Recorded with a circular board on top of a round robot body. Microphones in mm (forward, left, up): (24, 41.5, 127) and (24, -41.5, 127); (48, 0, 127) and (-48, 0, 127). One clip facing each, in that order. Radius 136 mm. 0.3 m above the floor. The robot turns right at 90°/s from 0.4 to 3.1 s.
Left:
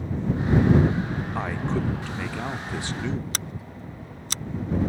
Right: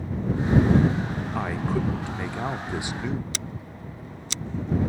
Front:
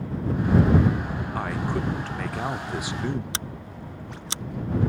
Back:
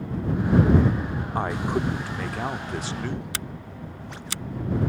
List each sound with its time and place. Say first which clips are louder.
1.4 s a man speaking: right 1 dB, back 3 dB; straight behind; by 3.2 s 25° right
3.3 s scissors: left 1 dB, even; 60° left